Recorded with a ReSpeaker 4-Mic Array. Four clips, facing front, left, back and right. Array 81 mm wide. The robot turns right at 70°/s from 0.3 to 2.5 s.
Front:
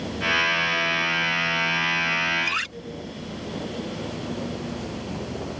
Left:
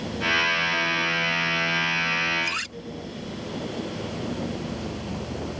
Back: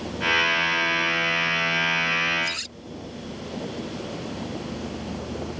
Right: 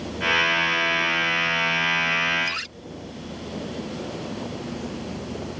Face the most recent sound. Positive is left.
turn(degrees=5)